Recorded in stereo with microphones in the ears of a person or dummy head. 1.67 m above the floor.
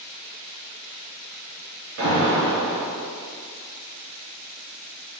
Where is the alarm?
70° right (ahead or behind), 1.9 m.